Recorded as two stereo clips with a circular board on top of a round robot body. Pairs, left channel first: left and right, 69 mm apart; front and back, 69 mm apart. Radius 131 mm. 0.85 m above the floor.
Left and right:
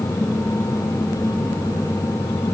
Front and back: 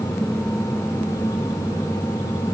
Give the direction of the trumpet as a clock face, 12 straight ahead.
I don't hear a trumpet.